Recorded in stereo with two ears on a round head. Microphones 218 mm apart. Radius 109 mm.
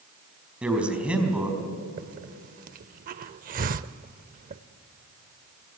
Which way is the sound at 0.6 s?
5° right (ahead or behind).